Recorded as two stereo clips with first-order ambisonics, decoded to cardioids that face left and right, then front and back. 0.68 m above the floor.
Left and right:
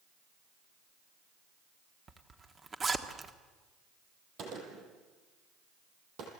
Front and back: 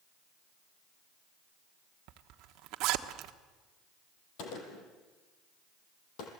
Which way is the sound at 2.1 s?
160° right.